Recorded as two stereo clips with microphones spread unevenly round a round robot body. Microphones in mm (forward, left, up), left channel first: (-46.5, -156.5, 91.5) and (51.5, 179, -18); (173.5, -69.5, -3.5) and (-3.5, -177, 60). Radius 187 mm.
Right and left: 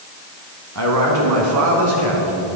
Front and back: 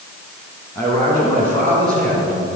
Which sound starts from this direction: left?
A man speaking, at 0.8 s.